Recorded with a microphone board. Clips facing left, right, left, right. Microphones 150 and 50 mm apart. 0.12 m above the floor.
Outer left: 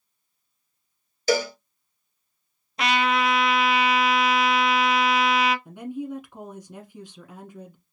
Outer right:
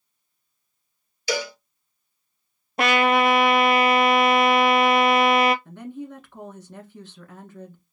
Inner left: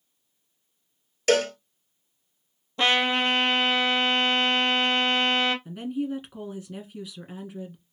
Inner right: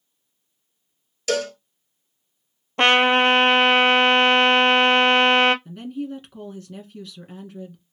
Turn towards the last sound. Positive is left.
turn(degrees=15)  # may be behind; listen again after turning